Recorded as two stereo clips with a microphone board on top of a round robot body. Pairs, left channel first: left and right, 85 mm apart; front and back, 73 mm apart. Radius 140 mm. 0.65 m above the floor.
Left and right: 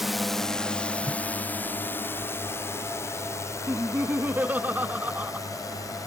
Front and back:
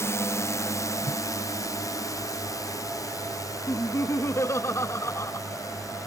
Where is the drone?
5° right; by 6.1 s 40° left.